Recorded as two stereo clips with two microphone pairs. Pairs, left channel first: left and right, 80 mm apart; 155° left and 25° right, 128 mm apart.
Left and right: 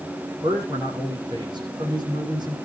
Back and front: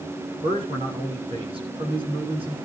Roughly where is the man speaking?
Right.